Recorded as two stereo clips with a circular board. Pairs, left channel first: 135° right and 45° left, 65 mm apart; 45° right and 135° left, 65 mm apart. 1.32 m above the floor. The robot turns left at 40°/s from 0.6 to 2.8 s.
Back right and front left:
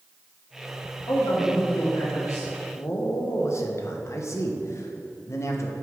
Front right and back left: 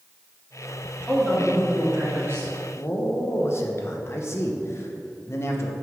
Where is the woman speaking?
120° right, 2.5 m; by 2.5 s straight behind, 2.5 m.